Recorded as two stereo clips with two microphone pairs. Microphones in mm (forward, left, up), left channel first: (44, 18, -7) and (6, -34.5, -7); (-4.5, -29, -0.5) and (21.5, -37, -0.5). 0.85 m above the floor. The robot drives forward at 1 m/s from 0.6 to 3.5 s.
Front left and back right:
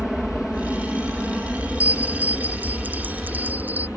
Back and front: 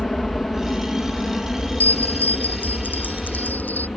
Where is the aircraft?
145° left; by 4.0 s 160° left.